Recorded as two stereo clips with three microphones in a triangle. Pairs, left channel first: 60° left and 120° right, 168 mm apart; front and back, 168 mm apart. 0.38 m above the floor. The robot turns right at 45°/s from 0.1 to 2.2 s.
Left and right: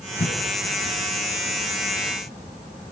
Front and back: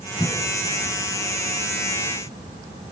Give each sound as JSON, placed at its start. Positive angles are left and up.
{"t": 0.2, "sound": "a cough", "azimuth_deg": 70, "distance_m": 6.5}